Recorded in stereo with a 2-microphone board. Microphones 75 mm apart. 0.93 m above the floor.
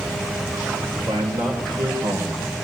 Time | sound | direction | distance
0.9 | a man speaking | 55° right (ahead or behind) | 3.5 m